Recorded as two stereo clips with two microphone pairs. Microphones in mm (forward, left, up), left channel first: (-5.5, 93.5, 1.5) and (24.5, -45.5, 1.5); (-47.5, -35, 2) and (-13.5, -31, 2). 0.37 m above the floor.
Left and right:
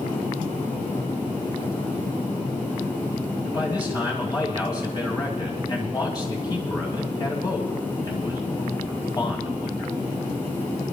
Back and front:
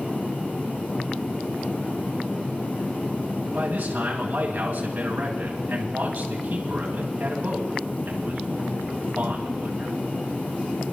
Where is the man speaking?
45° left, 2 m.